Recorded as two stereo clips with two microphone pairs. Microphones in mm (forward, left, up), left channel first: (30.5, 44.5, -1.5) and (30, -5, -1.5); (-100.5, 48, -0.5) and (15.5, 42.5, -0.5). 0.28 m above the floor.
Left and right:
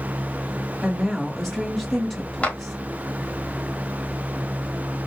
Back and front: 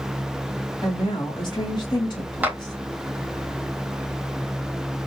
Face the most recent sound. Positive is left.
turn(degrees=65)